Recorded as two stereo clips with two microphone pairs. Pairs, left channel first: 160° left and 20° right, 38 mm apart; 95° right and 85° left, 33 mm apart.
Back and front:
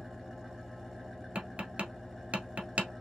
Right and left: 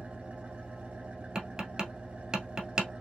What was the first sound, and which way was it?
An engine running, 70° left.